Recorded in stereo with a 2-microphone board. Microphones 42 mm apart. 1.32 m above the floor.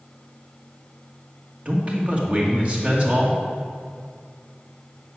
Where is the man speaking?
30° right (ahead or behind), 2.0 m.